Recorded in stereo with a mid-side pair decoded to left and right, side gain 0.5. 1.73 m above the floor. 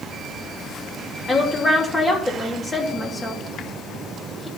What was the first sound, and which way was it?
A woman speaking, 20° left.